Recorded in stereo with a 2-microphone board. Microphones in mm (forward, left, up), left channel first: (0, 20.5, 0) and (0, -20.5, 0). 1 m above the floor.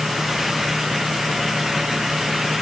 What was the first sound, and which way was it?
Only background noise.